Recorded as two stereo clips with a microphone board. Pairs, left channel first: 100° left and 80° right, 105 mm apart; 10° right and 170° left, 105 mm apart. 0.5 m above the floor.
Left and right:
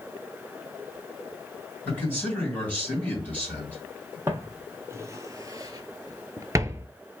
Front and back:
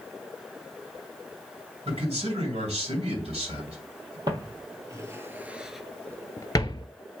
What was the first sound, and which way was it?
A man speaking, 175° left.